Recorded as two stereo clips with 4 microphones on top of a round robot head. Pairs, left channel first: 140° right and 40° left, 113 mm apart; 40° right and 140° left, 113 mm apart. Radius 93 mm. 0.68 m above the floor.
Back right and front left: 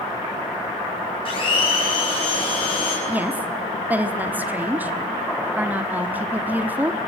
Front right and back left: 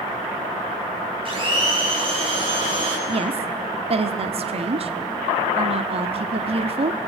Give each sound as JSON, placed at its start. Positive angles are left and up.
{"t": 1.2, "sound": "a blender", "azimuth_deg": 180, "distance_m": 6.0}
{"t": 3.1, "sound": "a woman speaking", "azimuth_deg": 115, "distance_m": 1.4}